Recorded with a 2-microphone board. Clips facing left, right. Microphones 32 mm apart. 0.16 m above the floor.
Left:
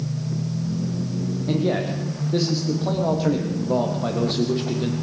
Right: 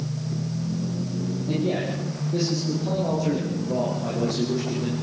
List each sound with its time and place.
1.5 s a man speaking: 80° left, 7 m; by 4.9 s 70° left (ahead or behind), 6 m